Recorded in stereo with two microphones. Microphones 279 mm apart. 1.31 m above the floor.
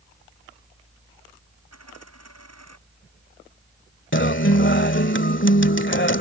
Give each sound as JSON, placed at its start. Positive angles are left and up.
{"t": 1.7, "sound": "a dropped coin", "side_deg": -70}
{"t": 4.1, "sound": "a guitar", "side_deg": 45}